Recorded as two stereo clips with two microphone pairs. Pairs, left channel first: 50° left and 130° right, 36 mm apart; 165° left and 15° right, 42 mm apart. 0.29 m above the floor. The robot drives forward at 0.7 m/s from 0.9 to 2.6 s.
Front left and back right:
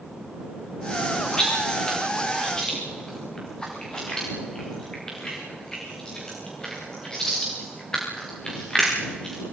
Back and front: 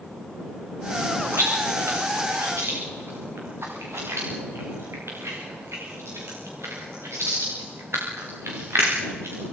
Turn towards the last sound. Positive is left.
turn(degrees=-25)